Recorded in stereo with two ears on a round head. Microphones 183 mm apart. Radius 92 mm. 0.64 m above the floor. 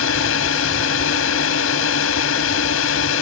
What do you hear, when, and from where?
0.0 s a drone: 75° left (ahead or behind)